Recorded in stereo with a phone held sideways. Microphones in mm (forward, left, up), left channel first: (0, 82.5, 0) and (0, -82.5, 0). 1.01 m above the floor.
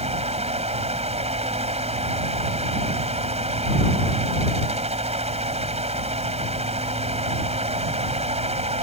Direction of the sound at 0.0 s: 40° right (ahead or behind).